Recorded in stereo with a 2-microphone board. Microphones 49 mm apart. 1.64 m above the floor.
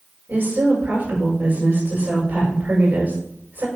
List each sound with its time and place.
0.3 s a woman speaking: 40° right (ahead or behind), 6.5 m